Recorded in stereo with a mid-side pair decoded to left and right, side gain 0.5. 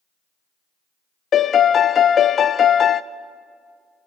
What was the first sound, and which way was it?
A piano, 45° left.